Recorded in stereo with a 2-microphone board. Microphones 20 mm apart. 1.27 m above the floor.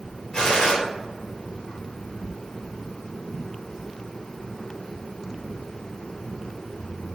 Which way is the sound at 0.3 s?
55° left (ahead or behind).